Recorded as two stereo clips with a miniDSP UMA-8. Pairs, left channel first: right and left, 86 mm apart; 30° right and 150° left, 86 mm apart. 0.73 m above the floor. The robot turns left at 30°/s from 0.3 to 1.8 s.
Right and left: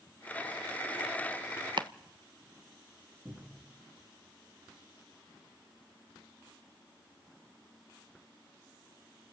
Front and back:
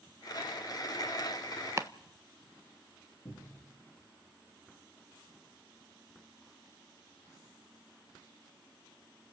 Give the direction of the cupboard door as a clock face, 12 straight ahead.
11 o'clock.